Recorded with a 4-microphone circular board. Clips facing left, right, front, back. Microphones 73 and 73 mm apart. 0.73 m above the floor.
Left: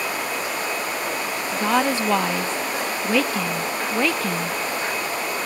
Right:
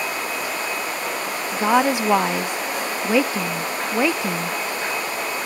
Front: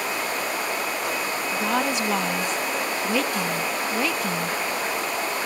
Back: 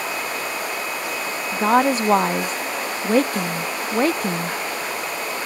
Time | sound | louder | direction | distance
1.5 | a woman speaking | right 3 dB, back 8 dB | 155° right | ?